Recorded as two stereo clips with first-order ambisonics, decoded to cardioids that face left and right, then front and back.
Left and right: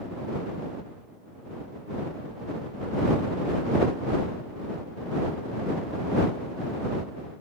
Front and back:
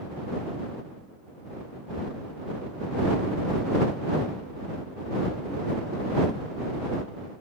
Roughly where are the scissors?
I don't hear scissors.